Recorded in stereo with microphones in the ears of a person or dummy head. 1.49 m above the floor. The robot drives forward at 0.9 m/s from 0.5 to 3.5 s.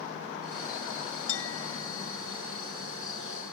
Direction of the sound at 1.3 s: 80° left.